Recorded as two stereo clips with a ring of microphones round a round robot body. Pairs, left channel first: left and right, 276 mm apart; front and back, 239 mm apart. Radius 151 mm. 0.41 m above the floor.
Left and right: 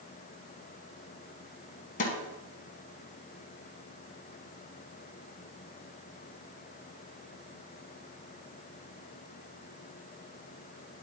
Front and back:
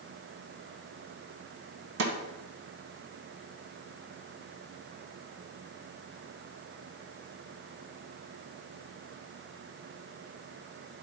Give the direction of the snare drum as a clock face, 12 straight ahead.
7 o'clock.